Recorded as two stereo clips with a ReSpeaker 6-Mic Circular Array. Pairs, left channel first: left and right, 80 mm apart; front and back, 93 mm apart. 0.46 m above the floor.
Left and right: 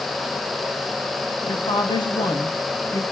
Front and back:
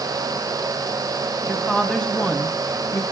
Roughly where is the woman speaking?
Left.